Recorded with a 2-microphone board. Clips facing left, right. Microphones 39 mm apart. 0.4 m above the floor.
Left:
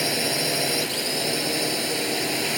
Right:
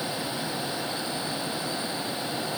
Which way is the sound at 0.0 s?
80° left.